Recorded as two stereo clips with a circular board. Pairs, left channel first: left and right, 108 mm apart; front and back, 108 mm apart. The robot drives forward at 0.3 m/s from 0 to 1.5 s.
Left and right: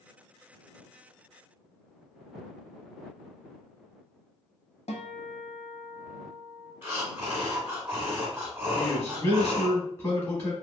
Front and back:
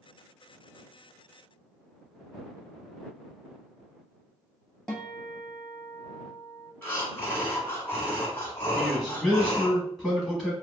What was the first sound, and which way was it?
A guitar, 85° left.